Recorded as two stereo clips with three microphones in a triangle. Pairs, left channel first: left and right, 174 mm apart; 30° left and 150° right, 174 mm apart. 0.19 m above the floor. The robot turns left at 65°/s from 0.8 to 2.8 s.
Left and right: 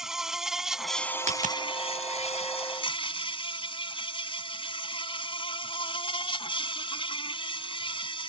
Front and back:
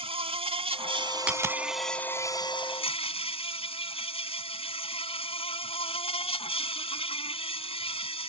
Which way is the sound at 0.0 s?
175° right.